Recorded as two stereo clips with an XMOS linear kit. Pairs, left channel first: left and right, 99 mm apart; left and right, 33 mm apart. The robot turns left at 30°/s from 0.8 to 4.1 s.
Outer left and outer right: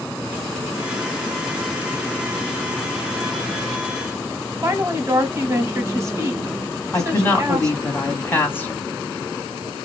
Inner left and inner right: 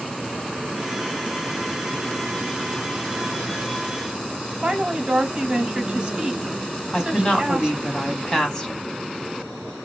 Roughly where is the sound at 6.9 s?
Left.